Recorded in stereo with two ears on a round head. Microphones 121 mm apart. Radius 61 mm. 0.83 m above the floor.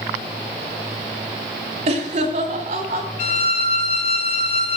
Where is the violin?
55° left (ahead or behind), 1.5 m.